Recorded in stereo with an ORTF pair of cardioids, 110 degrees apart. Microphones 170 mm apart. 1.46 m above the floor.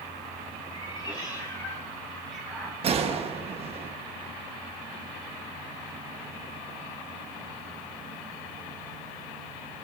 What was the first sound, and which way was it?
A cat meowing, 30° left.